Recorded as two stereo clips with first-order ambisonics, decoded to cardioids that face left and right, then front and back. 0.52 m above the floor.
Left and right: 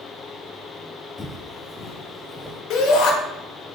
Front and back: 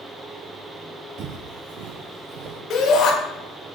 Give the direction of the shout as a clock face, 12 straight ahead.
10 o'clock.